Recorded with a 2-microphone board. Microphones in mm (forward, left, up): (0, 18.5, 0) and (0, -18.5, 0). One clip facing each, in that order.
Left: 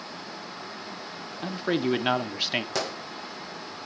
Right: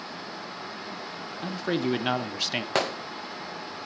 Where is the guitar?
No guitar in this recording.